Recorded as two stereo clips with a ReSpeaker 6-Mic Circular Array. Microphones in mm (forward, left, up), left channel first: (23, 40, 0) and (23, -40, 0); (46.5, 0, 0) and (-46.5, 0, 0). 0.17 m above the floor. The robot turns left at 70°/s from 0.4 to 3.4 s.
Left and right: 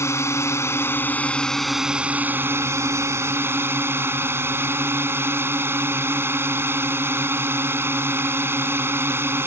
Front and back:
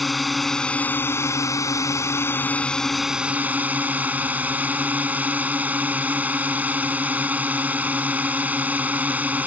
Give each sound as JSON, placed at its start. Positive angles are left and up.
{"t": 0.0, "sound": "a drone", "azimuth_deg": 90}